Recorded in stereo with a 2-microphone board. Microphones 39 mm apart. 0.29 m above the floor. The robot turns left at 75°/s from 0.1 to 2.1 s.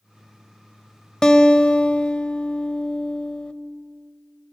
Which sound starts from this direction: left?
A guitar, at 1.2 s.